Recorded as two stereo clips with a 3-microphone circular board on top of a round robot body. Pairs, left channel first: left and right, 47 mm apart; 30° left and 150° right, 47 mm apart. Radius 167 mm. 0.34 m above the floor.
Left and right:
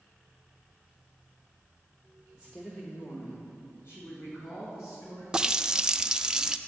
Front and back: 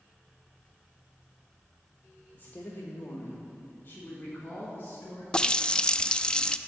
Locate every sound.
2.3 s a woman speaking: 5° left, 1.3 m; by 5.2 s 75° left, 4 m
5.3 s a running tap: 25° right, 0.5 m